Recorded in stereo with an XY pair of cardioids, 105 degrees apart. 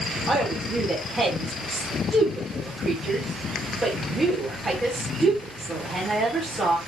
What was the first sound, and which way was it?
A woman speaking, 10° right.